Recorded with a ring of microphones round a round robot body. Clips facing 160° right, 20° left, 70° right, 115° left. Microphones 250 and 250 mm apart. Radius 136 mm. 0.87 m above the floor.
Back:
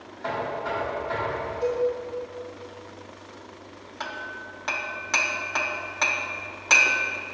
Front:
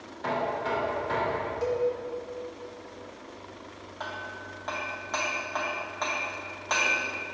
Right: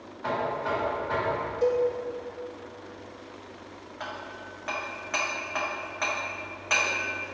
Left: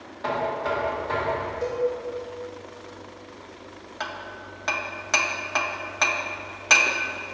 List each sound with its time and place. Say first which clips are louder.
0.2 s knocking: even, left 3 dB; 70° left, 2.5 m
1.6 s a cowbell: back 3 dB, right 2 dB; 20° left, 1.5 m
4.0 s hammering: back 1 dB, left 3 dB; 150° left, 0.6 m